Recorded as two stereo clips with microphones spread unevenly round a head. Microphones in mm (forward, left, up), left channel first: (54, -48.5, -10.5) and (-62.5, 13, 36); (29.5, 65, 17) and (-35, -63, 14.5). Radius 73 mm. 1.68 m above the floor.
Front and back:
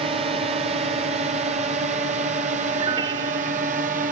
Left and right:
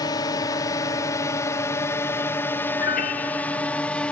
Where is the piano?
95° left.